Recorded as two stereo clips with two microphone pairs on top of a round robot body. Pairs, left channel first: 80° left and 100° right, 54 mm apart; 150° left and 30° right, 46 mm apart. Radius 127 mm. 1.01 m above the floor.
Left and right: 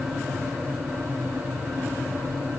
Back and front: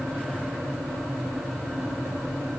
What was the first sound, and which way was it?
Only background noise.